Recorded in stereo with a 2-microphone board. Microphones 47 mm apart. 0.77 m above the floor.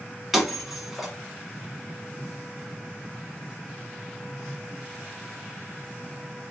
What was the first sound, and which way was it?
Breaking glass, 5° right (ahead or behind).